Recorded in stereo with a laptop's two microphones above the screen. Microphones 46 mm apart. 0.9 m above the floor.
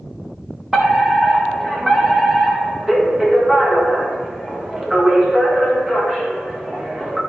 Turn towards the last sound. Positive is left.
turn(degrees=-10)  # may be behind; listen again after turning